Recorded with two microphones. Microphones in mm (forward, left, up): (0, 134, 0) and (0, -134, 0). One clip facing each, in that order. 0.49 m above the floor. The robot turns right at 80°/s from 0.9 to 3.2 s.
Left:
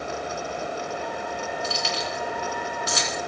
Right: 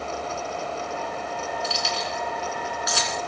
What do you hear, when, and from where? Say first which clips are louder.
1.6 s keys jangling: left 1 dB; 50° left (ahead or behind), 4 m; by 3.2 s 5° left (ahead or behind), 4 m